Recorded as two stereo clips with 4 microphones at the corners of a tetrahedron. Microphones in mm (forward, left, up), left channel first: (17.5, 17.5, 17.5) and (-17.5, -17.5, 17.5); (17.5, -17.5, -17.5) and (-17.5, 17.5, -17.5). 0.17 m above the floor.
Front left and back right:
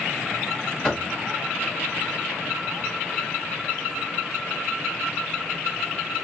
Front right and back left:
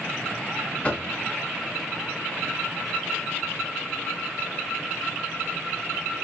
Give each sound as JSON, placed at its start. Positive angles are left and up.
{"t": 0.8, "sound": "knocking", "azimuth_deg": -15, "distance_m": 0.8}